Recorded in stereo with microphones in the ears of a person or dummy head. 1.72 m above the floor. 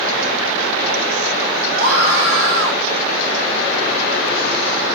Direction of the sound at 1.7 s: 65° right (ahead or behind).